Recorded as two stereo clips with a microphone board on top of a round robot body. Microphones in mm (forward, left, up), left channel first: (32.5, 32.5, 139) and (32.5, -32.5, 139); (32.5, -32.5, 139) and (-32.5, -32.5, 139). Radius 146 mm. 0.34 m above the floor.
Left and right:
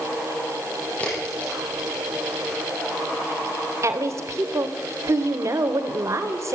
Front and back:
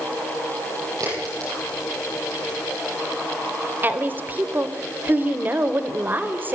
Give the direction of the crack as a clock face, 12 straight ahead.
7 o'clock.